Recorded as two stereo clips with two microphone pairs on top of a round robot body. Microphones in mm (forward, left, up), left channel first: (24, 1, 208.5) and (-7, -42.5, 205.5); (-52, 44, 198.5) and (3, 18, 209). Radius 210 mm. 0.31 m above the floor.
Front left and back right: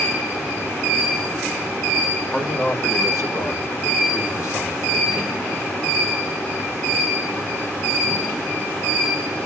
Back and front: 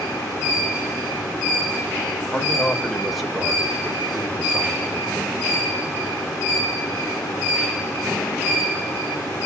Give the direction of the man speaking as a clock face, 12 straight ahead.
9 o'clock.